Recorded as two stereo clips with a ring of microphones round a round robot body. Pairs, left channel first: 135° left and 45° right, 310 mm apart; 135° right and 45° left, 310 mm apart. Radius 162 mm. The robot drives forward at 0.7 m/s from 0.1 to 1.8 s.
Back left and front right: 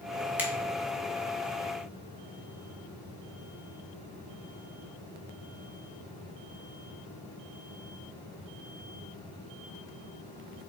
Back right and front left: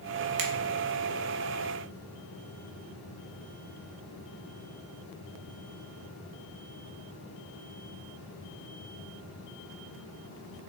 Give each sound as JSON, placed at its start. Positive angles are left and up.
{"t": 0.4, "sound": "a finger snap", "azimuth_deg": 40, "distance_m": 1.5}